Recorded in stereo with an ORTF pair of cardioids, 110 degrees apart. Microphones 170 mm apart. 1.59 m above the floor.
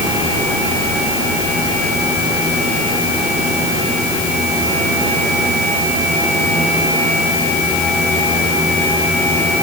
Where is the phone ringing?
No phone ringing in this recording.